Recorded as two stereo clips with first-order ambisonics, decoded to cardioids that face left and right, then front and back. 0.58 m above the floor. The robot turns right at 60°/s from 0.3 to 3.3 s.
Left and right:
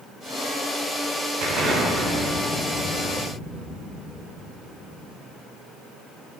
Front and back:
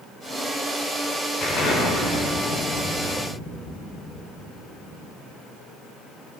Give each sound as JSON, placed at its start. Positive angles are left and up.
{"t": 1.4, "sound": "an explosion", "azimuth_deg": -55, "distance_m": 1.4}